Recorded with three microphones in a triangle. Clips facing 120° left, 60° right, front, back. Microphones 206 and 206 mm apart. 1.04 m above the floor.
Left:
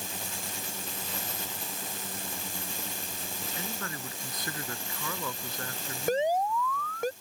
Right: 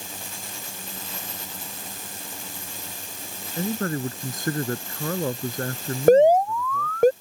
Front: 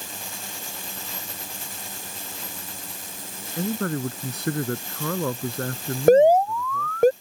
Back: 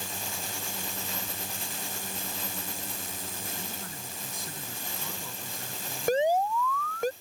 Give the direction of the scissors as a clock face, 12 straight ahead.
No scissors in this recording.